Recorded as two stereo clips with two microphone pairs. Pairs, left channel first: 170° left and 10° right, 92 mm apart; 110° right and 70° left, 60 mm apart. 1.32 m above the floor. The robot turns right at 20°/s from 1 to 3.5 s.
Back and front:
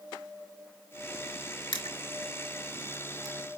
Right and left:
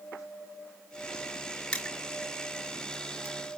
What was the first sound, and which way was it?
Crushing, straight behind.